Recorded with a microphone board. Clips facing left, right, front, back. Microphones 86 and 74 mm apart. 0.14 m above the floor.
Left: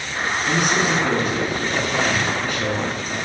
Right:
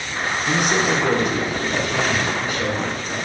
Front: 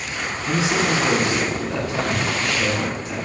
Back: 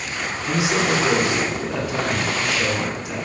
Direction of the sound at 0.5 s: 125° right.